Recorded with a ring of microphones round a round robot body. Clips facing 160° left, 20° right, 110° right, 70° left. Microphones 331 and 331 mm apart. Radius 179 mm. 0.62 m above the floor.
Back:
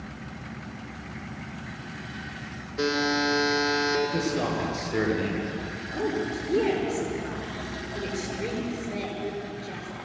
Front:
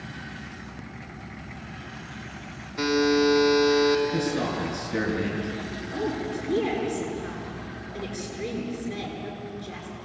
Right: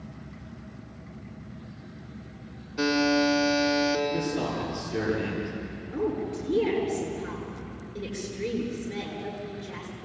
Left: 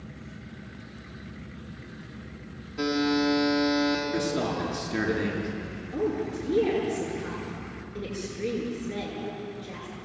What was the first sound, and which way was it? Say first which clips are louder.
A buzzer: front 5 dB, right 1 dB; 45° right.